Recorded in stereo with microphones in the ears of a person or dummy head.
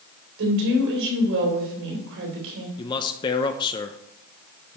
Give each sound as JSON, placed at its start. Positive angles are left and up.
{"t": 0.4, "sound": "a woman speaking", "side_deg": -75, "distance_m": 3.5}
{"t": 2.8, "sound": "a man speaking", "side_deg": 25, "distance_m": 0.6}